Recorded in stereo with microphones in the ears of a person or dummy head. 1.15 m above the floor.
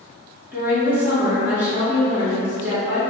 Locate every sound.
0.5 s a woman speaking: 10° right (ahead or behind), 1.2 m